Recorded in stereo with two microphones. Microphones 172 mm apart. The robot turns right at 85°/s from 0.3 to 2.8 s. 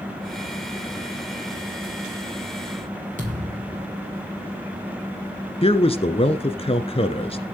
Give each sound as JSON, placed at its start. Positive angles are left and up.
{"t": 3.2, "sound": "a thud", "side_deg": -50, "distance_m": 7.0}
{"t": 5.6, "sound": "a man speaking", "side_deg": 35, "distance_m": 1.3}